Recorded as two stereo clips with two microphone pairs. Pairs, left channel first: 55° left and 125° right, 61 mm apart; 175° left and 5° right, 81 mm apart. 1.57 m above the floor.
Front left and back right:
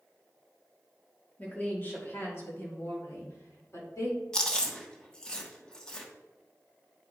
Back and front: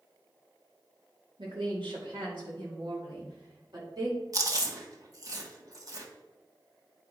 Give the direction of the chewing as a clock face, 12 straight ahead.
1 o'clock.